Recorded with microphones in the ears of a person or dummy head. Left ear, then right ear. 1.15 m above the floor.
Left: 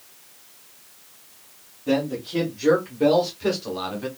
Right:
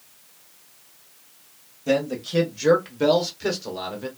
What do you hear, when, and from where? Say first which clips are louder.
1.9 s a man speaking: right 1 dB; 60° right (ahead or behind), 1.0 m; by 4.1 s centre (ahead or behind), 0.9 m